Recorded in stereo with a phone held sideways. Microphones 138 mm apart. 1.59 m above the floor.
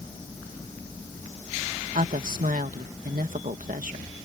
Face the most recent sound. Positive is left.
turn(degrees=-80)